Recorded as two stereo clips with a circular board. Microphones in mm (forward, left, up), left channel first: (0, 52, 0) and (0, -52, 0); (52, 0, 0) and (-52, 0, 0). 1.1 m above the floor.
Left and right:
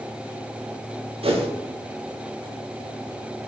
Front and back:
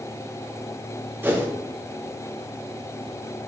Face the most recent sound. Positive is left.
turn(degrees=-110)